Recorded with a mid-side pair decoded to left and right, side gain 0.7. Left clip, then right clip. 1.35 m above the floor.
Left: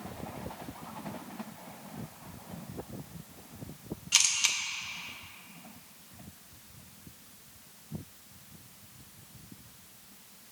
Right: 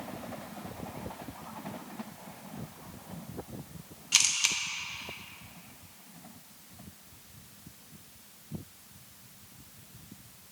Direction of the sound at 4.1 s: 5° right.